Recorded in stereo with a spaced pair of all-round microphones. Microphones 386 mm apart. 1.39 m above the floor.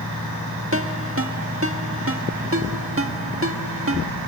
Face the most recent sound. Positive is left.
turn(degrees=-35)  # may be behind; listen again after turning